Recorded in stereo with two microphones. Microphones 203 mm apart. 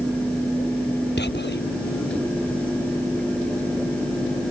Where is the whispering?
60° left (ahead or behind).